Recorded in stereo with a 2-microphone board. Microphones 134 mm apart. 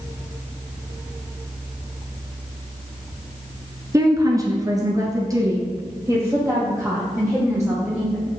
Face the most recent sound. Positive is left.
turn(degrees=-20)  # may be behind; listen again after turning